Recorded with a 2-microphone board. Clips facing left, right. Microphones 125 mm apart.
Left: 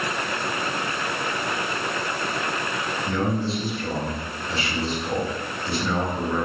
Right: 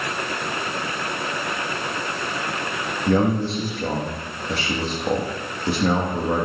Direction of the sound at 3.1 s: 75° right (ahead or behind).